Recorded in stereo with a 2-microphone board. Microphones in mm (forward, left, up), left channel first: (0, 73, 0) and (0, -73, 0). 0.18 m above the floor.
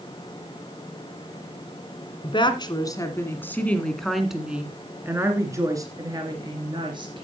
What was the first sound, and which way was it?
A woman speaking, 35° left (ahead or behind).